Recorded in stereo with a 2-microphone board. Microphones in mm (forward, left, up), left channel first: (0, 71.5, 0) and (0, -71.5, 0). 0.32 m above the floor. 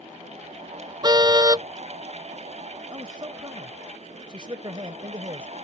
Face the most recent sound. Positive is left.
turn(degrees=-35)  # may be behind; listen again after turning